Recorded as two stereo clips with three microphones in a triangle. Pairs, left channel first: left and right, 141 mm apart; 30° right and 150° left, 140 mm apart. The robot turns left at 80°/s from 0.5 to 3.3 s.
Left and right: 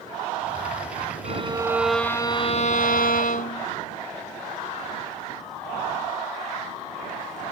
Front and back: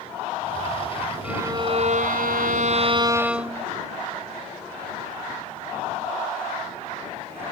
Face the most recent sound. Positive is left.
turn(degrees=70)